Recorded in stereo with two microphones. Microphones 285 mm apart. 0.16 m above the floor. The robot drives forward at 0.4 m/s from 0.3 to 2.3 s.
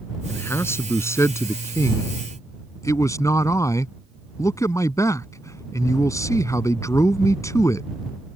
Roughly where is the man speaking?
Centre.